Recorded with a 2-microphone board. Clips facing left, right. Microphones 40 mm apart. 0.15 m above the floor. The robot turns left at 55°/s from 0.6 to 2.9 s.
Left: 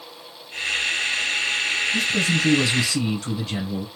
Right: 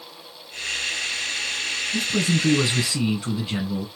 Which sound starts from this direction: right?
A man speaking, at 1.9 s.